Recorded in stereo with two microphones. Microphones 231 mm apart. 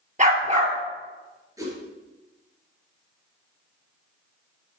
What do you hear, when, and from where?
0.2 s a dog barking: 30° right (ahead or behind), 2 m
1.6 s a whoosh: 15° right (ahead or behind), 4 m